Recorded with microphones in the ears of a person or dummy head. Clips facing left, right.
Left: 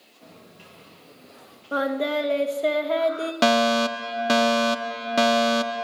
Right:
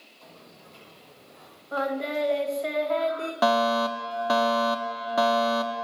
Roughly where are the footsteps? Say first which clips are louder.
Left 2 dB; left.